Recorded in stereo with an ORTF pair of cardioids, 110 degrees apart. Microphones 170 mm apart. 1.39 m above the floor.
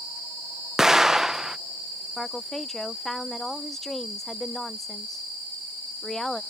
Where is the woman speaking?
Straight ahead.